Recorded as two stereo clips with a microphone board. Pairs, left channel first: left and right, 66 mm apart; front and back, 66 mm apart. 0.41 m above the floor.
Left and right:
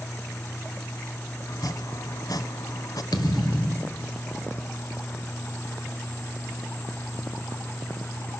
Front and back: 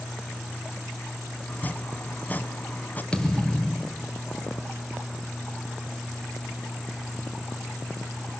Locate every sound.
1.5 s chopping: 65° left, 1.0 m
3.1 s a thud: 80° left, 2.5 m